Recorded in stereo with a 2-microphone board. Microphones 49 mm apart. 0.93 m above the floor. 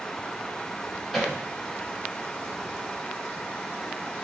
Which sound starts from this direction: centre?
Hammering, at 1.1 s.